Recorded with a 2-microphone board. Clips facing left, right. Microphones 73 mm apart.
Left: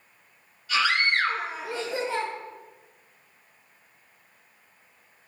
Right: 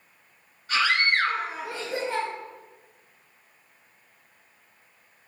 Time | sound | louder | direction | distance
0.7 | a scream | right 1 dB | 45° right (ahead or behind) | 3 m